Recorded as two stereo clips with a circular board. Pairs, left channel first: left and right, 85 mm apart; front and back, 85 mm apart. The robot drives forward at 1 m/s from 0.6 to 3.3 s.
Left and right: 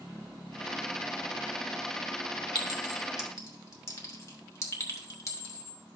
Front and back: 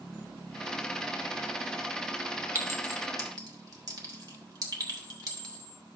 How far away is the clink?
About 1.4 m.